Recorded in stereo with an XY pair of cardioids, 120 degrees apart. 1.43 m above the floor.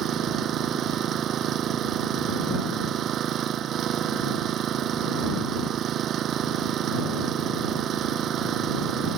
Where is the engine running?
55° right.